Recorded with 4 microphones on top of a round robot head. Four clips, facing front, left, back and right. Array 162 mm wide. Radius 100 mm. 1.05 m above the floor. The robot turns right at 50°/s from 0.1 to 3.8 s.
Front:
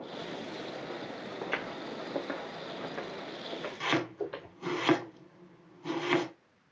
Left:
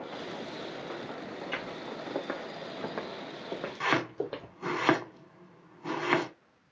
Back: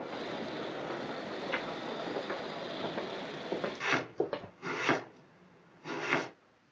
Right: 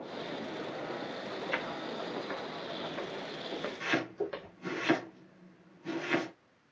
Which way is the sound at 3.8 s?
75° left.